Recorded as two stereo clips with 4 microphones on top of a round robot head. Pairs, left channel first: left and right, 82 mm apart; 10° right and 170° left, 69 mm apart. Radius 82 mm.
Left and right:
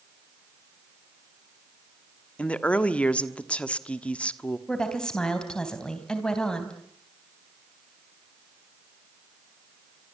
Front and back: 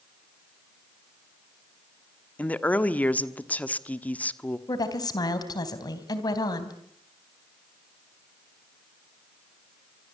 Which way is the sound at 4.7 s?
10° left.